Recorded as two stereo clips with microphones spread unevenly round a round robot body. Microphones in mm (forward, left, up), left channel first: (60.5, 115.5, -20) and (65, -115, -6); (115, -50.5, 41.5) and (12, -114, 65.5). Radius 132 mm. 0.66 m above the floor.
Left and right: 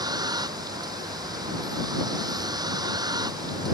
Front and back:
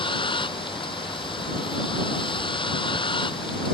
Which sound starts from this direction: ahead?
A vehicle, at 0.0 s.